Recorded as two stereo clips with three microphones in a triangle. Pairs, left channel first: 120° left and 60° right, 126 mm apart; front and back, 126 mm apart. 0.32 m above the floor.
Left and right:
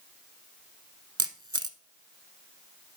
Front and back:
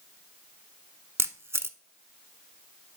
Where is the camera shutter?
110° right, 0.6 m.